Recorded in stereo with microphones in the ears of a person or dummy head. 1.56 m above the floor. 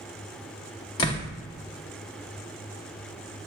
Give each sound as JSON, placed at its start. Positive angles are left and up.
{"t": 1.0, "sound": "a door slam", "side_deg": 25, "distance_m": 0.6}